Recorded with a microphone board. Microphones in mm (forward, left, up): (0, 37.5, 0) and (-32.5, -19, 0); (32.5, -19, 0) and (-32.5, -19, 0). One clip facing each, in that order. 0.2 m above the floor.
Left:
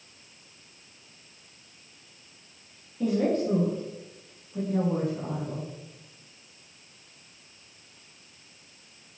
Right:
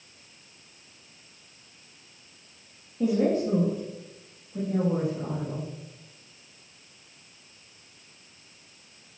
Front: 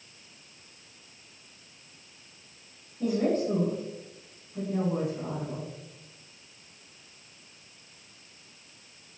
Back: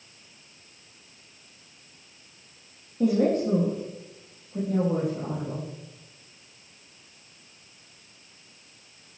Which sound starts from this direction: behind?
A woman speaking, at 3.0 s.